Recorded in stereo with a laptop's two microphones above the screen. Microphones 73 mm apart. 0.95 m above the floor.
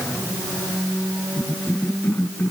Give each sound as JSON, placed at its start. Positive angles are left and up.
{"t": 1.4, "sound": "a cough", "side_deg": 30}